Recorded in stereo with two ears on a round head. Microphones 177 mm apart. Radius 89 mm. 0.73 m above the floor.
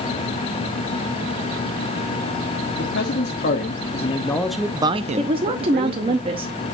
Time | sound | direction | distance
2.8 | a man speaking | 60° left (ahead or behind) | 1.3 m
5.2 | a woman speaking | 25° right (ahead or behind) | 0.8 m